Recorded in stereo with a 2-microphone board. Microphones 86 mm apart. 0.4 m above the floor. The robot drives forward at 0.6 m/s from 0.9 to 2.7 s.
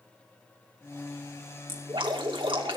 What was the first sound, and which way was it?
Dripping, 70° right (ahead or behind).